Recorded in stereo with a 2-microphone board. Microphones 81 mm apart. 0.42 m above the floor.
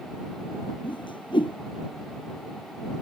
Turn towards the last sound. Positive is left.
turn(degrees=85)